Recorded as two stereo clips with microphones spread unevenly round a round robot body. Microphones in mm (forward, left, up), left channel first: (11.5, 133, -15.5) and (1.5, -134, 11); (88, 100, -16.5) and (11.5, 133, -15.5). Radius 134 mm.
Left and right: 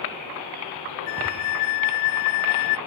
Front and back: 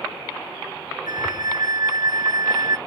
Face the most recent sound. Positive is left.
turn(degrees=115)